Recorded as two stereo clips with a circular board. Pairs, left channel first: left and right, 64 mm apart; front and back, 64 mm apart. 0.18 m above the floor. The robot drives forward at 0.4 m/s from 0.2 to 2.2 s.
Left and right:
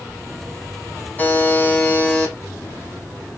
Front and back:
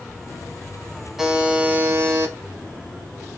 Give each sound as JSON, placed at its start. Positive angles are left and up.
{"t": 1.2, "sound": "a buzzer", "azimuth_deg": 105, "distance_m": 0.5}